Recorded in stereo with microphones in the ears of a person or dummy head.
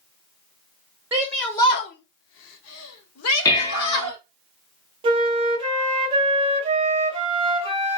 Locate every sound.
1.1 s a shout: 10° right (ahead or behind), 0.8 m; by 4.2 s 80° left, 2 m
3.5 s dishes clattering: 20° left (ahead or behind), 0.7 m
5.0 s a flute: 30° right (ahead or behind), 1.0 m